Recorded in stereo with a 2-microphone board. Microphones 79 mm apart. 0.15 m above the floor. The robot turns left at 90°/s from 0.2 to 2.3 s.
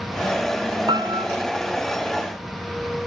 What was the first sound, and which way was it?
A piano, 85° right.